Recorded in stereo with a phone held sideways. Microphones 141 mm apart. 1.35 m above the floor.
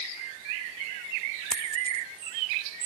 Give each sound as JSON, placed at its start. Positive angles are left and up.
{"t": 1.5, "sound": "a dropped coin", "side_deg": 10}